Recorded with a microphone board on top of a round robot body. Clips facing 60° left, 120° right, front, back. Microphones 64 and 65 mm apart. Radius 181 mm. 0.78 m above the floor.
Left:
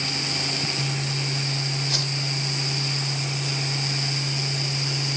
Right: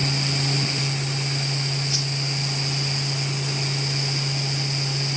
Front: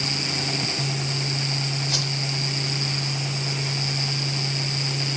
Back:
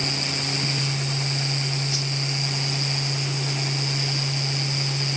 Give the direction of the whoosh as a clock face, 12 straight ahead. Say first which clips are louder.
Even, front 1 dB; 11 o'clock.